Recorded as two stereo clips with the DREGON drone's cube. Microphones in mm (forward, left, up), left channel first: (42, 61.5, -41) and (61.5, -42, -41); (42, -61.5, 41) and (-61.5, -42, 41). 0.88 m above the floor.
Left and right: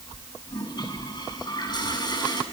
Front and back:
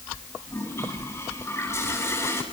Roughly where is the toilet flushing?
Ahead left.